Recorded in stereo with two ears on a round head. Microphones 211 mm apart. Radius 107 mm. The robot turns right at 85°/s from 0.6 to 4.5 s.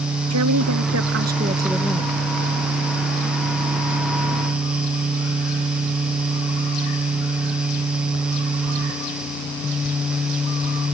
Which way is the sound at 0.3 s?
100° right.